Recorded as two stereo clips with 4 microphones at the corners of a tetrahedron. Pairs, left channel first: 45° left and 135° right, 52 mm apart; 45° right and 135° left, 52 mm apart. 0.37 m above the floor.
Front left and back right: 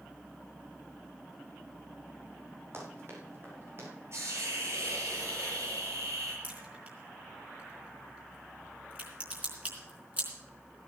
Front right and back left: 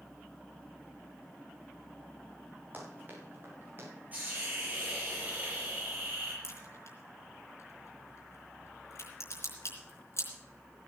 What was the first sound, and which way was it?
Running footsteps, 170° right.